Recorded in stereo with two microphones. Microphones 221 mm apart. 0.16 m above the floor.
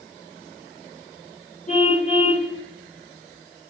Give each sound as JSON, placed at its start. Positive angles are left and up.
{"t": 1.7, "sound": "a car horn", "side_deg": 35, "distance_m": 8.0}